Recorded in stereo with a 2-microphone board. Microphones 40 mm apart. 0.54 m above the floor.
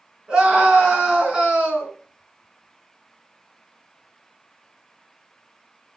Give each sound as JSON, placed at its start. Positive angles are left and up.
{"t": 0.3, "sound": "a scream", "side_deg": -20, "distance_m": 5.5}